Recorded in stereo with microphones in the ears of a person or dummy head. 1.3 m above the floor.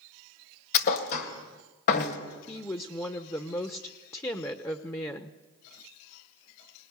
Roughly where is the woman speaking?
Centre.